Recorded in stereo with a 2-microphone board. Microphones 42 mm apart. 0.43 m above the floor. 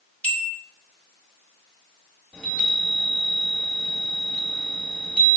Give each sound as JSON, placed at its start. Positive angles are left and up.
{"t": 0.2, "sound": "a bell", "side_deg": 25, "distance_m": 0.8}
{"t": 2.3, "sound": "a chime", "side_deg": 25, "distance_m": 1.8}